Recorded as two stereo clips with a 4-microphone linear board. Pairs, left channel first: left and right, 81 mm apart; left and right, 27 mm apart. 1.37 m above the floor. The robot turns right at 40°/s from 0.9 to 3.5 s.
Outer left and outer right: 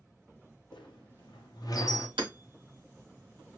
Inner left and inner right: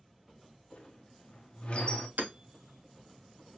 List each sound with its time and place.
0.7 s a squeak: 70° left (ahead or behind), 0.6 m; by 2.1 s 40° left (ahead or behind), 0.6 m
2.2 s hammering: 90° right, 0.9 m; by 2.3 s 85° right, 0.9 m